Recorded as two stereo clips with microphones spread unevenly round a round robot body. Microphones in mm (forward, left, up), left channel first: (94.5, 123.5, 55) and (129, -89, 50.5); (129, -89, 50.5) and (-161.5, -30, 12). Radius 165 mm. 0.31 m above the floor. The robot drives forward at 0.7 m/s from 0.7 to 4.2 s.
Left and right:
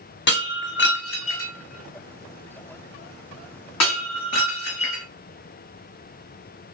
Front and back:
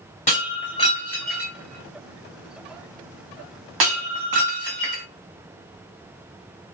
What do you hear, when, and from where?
0.3 s breaking glass: 60° left, 1.4 m; by 5.0 s 145° left, 2 m